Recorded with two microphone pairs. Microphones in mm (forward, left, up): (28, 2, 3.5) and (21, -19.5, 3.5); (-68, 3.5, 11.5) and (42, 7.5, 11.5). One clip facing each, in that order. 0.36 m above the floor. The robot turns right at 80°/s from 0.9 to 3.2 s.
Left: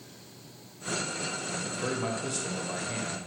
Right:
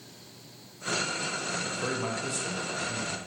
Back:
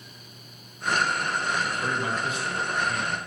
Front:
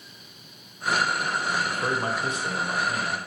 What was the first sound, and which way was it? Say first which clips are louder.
A man speaking: even, front 1 dB; 55° right.